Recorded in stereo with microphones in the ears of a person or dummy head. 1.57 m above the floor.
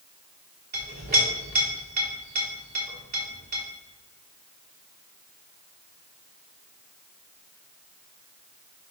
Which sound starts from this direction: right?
A clink, at 0.7 s.